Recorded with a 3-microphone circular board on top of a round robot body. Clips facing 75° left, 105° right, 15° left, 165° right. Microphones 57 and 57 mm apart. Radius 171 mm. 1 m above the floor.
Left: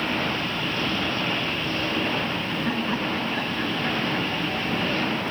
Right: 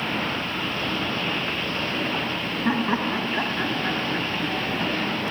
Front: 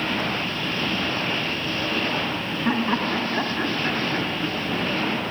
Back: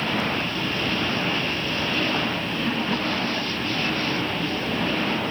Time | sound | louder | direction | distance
2.6 | laughter | right 5 dB, front 4 dB | 40° right | ?